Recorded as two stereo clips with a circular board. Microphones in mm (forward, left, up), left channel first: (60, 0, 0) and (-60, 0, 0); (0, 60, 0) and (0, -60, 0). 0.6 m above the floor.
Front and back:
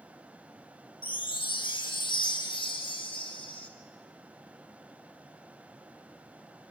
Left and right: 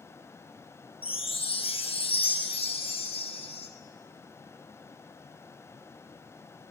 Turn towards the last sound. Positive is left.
turn(degrees=50)